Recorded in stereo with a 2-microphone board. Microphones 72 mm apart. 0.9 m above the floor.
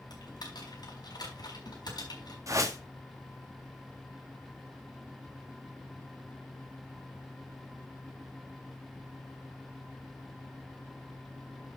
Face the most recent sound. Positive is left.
turn(degrees=-50)  # may be behind; listen again after turning